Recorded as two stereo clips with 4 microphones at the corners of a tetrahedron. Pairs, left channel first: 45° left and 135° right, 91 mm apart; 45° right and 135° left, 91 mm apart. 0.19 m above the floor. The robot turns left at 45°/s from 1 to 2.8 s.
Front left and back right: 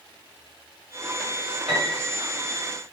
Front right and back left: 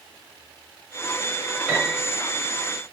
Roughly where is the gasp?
No gasp in this recording.